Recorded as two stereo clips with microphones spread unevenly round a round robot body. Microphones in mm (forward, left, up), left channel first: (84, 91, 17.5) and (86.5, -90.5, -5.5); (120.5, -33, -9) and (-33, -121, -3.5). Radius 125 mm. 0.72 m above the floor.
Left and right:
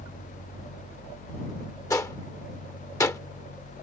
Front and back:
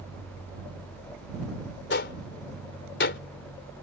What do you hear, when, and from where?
1.9 s a gunshot: 15° left